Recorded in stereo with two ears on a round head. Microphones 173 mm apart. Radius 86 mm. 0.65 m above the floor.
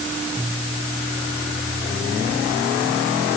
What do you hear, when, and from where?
Only background noise.